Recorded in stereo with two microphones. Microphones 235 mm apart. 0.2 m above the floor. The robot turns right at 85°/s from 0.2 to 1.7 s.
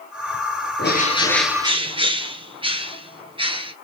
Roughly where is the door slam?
No door slam in this recording.